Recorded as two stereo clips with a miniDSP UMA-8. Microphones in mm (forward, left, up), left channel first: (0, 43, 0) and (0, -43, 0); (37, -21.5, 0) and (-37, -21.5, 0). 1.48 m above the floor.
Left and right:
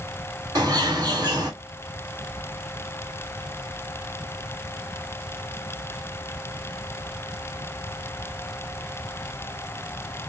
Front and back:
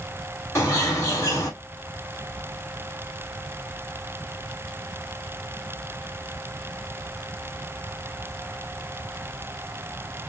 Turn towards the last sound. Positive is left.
turn(degrees=-50)